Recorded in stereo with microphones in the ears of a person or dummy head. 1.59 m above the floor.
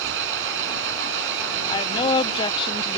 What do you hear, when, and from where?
0.0 s an engine running: 80° right
1.7 s a woman speaking: 25° left (ahead or behind)